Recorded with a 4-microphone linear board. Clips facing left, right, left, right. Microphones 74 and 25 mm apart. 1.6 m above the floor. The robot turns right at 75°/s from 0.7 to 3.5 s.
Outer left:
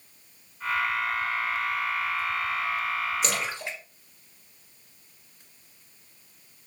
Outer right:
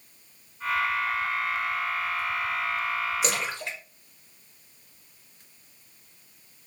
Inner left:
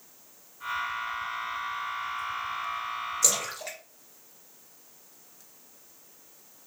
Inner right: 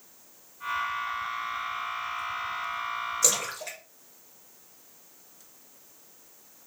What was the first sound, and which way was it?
A splash, 5° right (ahead or behind).